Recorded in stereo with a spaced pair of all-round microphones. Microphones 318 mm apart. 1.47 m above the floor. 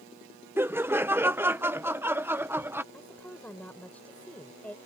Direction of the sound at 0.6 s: 5° right (ahead or behind).